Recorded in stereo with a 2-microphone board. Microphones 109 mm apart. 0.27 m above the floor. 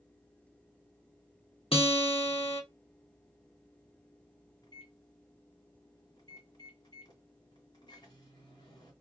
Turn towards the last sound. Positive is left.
turn(degrees=40)  # may be behind; listen again after turning